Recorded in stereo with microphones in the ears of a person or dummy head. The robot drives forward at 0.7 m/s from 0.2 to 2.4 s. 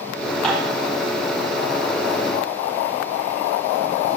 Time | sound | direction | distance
0.4 | dishes clattering | centre (ahead or behind) | 4.5 m